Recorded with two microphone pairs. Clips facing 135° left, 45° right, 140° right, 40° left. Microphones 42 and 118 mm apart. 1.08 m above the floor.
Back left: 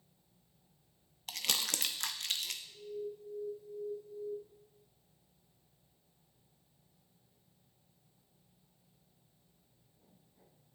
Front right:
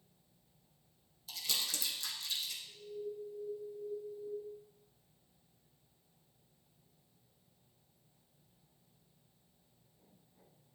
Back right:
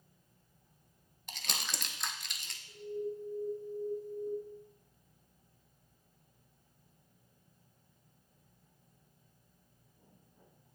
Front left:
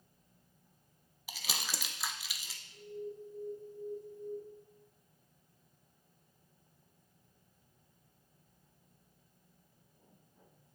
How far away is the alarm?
About 2.5 m.